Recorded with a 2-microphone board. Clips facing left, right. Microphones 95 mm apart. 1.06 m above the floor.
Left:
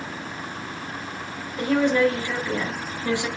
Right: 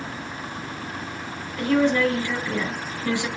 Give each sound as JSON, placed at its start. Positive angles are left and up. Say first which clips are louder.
{"t": 1.6, "sound": "a woman speaking", "louder": "even", "side_deg": 20, "distance_m": 3.0}